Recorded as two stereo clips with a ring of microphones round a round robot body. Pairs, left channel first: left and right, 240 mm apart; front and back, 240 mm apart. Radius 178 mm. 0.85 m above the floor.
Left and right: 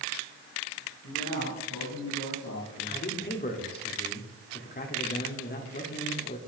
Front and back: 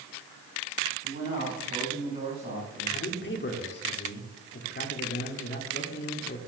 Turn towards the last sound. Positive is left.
turn(degrees=40)